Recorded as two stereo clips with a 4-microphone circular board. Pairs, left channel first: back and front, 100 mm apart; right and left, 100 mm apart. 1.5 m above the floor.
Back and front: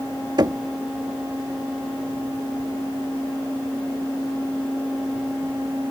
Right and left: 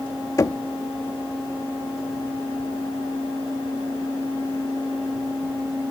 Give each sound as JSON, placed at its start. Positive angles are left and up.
{"t": 0.4, "sound": "knocking", "azimuth_deg": -40}